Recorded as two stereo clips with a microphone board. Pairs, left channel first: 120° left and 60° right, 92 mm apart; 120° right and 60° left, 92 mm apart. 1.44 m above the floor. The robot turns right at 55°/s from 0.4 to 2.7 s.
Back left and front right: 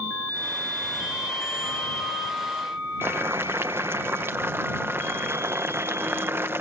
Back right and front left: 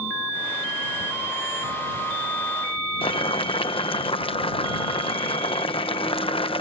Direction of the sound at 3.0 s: 125° right.